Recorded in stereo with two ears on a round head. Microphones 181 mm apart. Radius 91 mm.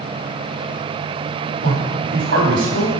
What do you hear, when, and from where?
1.6 s a man speaking: 70° right (ahead or behind), 3.5 m